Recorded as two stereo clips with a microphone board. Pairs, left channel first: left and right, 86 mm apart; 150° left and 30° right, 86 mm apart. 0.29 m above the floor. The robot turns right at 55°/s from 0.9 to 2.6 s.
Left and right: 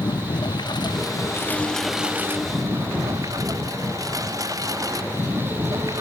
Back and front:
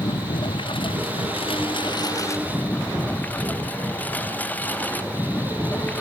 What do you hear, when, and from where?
0.0 s a lawn mower: 130° left; by 6.0 s 140° right